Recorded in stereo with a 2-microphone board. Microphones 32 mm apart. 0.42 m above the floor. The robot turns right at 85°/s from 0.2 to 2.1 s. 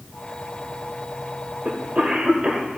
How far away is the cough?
About 2 m.